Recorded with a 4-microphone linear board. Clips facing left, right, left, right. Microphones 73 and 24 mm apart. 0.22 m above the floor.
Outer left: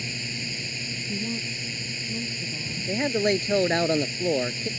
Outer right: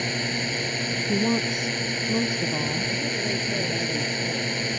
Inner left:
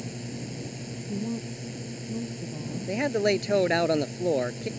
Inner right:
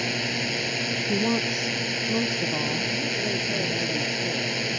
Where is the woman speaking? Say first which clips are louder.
Outer right 9 dB, inner right 7 dB; 75° right (ahead or behind).